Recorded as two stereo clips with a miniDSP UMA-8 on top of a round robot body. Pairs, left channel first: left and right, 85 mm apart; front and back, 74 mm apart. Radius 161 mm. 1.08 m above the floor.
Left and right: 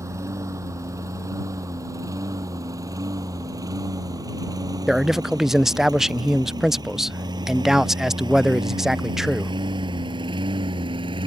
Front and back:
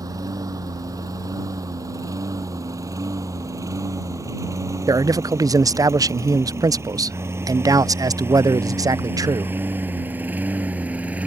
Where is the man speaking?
175° right.